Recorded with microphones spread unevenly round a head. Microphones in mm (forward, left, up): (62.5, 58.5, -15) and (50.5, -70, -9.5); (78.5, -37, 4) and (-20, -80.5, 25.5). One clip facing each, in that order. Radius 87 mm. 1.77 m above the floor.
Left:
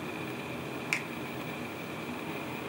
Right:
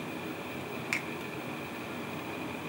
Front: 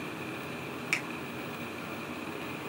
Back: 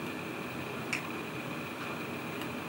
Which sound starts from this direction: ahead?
A finger snap, at 0.9 s.